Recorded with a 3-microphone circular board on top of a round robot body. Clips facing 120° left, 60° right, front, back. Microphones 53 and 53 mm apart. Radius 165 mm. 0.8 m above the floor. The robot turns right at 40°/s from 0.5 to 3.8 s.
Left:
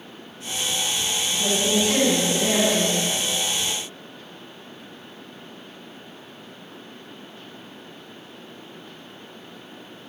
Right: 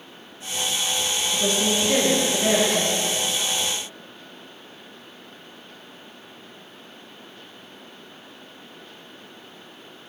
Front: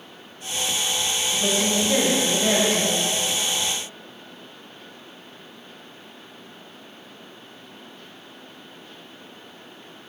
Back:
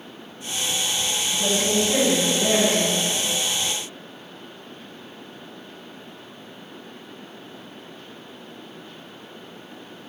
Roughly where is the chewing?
No chewing in this recording.